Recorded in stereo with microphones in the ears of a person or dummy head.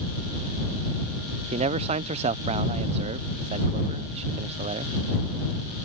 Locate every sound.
1.5 s a man speaking: 40° right (ahead or behind)